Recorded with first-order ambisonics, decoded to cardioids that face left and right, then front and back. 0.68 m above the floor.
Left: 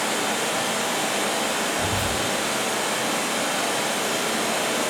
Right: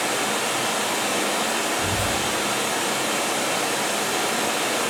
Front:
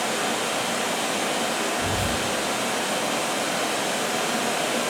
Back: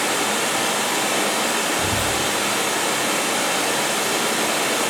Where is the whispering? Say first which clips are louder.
Right 1 dB, back 4 dB; 150° left, 1.3 m.